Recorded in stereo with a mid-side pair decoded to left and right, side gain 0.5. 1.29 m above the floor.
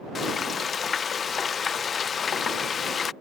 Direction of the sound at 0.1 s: 45° left.